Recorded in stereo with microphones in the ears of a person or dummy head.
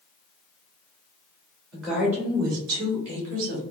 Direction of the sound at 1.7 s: Centre (ahead or behind).